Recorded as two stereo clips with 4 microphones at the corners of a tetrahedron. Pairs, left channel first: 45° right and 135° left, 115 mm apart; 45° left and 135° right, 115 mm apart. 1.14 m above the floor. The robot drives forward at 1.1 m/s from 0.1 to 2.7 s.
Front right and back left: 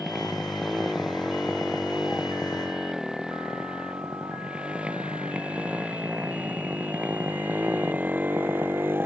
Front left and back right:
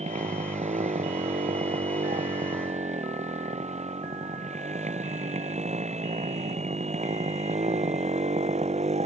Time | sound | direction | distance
0.0 | a motorcycle | 135° right | ?